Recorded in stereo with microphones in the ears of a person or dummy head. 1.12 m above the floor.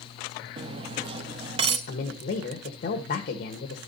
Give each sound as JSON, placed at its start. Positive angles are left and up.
{"t": 0.6, "sound": "cutlery clinking", "side_deg": -35, "distance_m": 0.7}
{"t": 1.9, "sound": "a man speaking", "side_deg": 45, "distance_m": 1.5}